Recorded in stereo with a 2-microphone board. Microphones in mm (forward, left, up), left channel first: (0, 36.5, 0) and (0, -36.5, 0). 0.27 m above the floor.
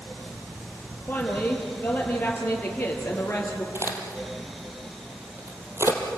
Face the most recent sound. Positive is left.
turn(degrees=-35)  # may be behind; listen again after turning